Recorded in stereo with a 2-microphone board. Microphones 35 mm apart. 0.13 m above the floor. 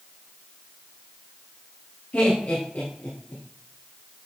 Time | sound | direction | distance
2.1 | laughter | 60° left (ahead or behind) | 2 m